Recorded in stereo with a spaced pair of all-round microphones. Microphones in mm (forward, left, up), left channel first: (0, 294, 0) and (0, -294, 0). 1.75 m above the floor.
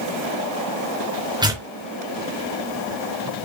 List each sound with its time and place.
1.4 s tearing paper: 5° right (ahead or behind), 4 m